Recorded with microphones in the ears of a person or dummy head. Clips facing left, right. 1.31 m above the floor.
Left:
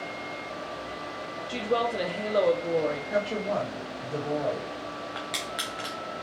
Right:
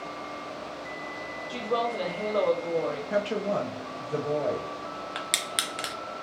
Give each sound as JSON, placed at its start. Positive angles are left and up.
{"t": 1.5, "sound": "a woman speaking", "side_deg": 25, "distance_m": 0.8}
{"t": 3.1, "sound": "a woman speaking", "side_deg": -30, "distance_m": 1.0}
{"t": 5.2, "sound": "crushing", "side_deg": -40, "distance_m": 0.8}